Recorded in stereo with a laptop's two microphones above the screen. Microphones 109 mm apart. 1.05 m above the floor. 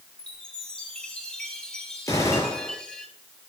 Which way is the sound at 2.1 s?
30° left (ahead or behind).